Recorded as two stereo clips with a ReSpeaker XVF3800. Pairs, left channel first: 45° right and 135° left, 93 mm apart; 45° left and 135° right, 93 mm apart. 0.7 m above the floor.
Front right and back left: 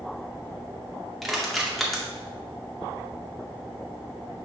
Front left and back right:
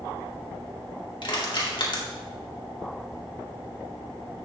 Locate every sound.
1.2 s crushing: 45° left, 1.9 m